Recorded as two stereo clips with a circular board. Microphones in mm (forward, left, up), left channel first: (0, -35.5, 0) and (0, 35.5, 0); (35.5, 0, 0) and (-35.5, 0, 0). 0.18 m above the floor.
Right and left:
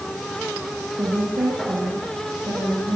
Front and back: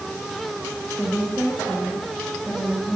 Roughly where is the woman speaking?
Left.